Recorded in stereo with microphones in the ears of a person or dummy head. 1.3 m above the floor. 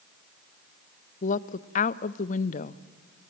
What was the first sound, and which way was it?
A woman speaking, 35° left (ahead or behind).